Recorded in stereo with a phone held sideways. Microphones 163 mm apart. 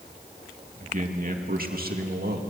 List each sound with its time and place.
0.8 s a man speaking: 50° right (ahead or behind), 2 m; by 2.4 s 75° right (ahead or behind), 2 m